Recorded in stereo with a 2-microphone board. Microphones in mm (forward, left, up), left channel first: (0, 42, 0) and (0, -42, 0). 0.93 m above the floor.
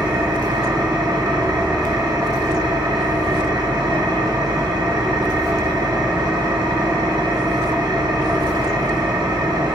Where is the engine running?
65° right (ahead or behind), 1.6 m.